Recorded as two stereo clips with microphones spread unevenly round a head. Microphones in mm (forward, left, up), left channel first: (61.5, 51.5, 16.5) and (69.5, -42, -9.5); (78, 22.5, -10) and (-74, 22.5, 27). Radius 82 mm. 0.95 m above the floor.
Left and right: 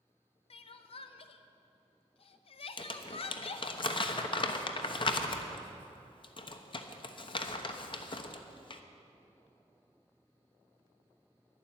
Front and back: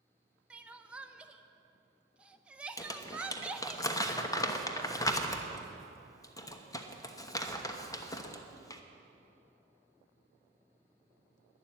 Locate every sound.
0.5 s crying: 85° left, 0.8 m
2.8 s crumpling: 60° left, 1.1 m